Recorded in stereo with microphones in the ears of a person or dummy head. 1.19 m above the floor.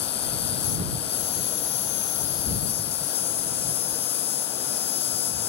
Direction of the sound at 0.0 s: 30° left (ahead or behind).